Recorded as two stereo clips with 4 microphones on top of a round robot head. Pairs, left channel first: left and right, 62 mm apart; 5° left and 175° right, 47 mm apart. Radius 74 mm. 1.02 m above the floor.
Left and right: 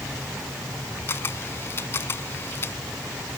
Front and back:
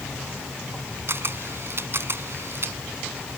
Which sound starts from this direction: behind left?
A camera shutter, at 1.1 s.